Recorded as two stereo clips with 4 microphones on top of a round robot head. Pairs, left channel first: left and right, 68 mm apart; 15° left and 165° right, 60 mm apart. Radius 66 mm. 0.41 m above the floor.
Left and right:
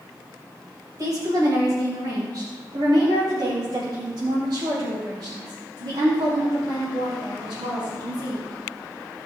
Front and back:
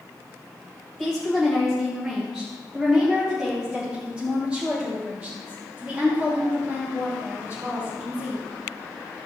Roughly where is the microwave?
I don't hear a microwave.